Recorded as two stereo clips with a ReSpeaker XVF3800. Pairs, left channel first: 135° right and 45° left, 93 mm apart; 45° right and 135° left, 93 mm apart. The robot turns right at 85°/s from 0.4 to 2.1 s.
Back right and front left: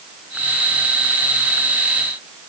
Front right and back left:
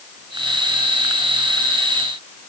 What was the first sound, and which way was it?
Only background noise.